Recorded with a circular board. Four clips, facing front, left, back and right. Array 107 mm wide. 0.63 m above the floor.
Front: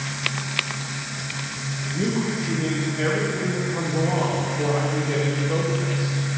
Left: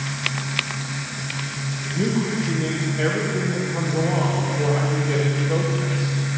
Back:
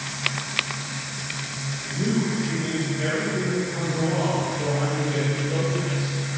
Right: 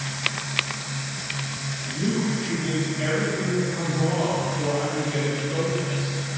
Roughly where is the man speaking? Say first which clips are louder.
Left 2 dB, even; left.